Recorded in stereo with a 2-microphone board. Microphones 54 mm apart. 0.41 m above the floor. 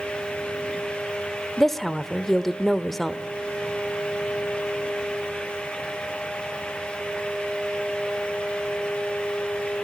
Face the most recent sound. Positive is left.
turn(degrees=5)  # may be behind; listen again after turning